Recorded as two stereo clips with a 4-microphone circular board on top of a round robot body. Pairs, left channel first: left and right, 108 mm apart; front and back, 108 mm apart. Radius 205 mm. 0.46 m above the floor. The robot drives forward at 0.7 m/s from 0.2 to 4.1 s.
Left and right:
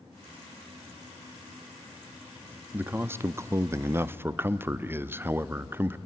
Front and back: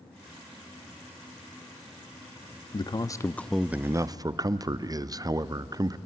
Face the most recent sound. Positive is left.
turn(degrees=-150)